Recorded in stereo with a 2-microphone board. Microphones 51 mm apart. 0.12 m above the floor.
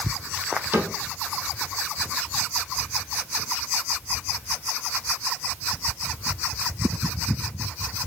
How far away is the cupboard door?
About 3 m.